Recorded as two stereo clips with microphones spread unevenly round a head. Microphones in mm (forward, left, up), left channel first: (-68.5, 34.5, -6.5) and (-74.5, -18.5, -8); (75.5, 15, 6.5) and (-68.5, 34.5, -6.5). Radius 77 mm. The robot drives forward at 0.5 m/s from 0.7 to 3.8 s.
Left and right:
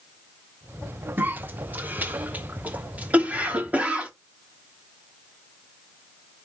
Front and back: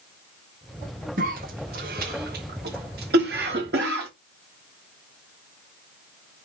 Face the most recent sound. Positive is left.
turn(degrees=-160)